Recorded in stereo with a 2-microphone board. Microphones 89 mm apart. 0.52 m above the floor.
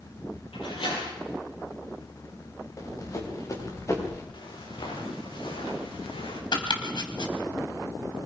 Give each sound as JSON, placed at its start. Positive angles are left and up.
{"t": 0.5, "sound": "a door slam", "side_deg": 85, "distance_m": 10.0}
{"t": 2.8, "sound": "running footsteps", "side_deg": 40, "distance_m": 7.0}
{"t": 4.3, "sound": "footsteps", "side_deg": 60, "distance_m": 9.0}
{"t": 6.5, "sound": "chopping", "side_deg": 60, "distance_m": 2.5}